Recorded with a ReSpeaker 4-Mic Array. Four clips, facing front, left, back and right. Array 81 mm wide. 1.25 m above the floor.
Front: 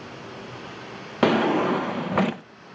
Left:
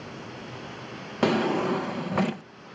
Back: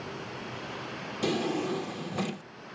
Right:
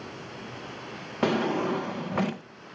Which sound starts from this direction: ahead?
A drawer, at 1.2 s.